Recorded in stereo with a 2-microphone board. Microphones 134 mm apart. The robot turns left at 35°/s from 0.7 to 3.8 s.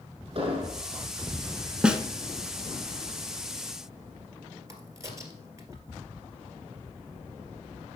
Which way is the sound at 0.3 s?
45° right (ahead or behind).